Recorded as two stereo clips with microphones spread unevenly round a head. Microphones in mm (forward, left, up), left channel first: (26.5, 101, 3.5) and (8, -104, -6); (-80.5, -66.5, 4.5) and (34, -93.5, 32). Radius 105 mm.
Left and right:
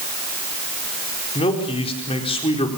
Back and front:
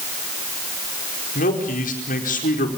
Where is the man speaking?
150° left, 4.5 m.